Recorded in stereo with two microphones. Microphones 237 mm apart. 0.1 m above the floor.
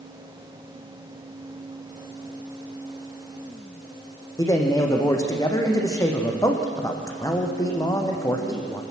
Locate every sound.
4.4 s a man speaking: 15° left (ahead or behind), 4.5 m